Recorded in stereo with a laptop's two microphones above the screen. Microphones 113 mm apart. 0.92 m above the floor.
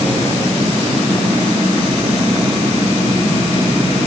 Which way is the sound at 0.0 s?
75° right (ahead or behind).